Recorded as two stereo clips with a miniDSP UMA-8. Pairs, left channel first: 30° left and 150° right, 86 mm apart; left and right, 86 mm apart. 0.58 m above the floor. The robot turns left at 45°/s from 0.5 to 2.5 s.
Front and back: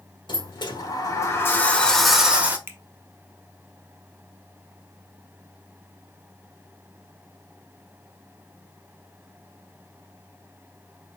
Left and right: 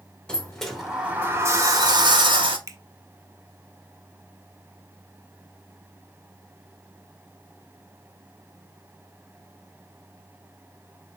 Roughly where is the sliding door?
Ahead.